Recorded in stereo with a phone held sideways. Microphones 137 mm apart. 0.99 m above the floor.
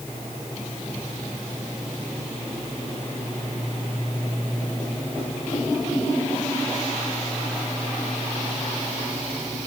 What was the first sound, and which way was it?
Only background noise.